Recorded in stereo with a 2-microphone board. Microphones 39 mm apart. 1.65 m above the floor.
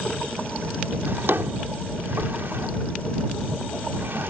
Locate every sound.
1.1 s a drawer: 70° right (ahead or behind)